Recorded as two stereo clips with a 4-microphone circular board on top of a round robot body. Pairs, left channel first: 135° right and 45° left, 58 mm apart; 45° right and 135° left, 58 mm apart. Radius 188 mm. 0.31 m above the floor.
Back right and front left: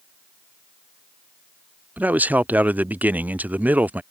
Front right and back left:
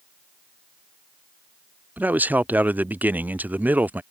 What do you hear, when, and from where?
2.0 s a man speaking: 90° left